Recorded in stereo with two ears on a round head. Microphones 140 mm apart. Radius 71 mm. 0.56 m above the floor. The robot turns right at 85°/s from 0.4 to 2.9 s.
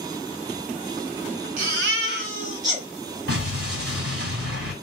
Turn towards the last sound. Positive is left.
turn(degrees=-70)  # may be behind; listen again after turning